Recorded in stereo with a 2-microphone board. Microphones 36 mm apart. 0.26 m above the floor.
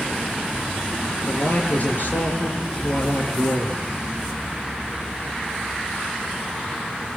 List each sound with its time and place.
1.3 s a man speaking: 50° left (ahead or behind), 5 m